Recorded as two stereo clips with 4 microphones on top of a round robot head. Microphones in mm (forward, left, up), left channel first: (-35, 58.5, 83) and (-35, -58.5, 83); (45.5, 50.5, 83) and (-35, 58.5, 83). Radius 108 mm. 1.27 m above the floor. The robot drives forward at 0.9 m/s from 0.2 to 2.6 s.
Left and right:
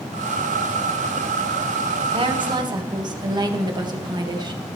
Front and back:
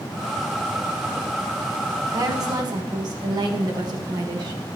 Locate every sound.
2.1 s a woman speaking: 130° right, 1.3 m; by 4.6 s 145° right, 1.6 m